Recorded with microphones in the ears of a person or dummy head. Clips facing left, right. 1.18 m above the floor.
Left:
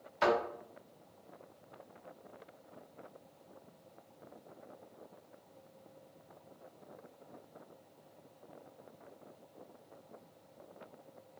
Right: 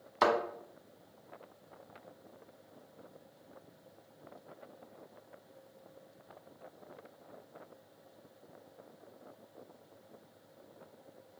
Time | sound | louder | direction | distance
0.2 | a thud | right 1 dB | 70° right (ahead or behind) | 1.7 m